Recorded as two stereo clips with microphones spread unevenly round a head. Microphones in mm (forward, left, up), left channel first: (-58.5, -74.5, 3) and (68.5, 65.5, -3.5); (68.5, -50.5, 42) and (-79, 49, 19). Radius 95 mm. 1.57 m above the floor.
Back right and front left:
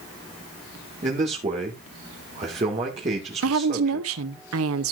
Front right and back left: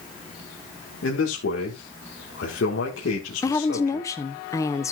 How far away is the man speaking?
About 2 m.